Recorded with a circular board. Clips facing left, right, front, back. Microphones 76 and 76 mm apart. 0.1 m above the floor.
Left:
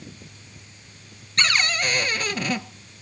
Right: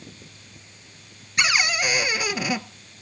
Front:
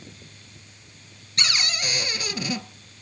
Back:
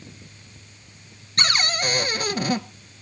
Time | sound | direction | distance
1.4 | a cupboard door | 165° right | 0.7 m